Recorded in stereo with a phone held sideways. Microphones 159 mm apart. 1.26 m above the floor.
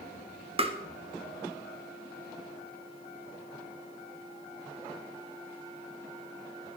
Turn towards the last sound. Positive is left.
turn(degrees=-35)  # may be behind; listen again after turning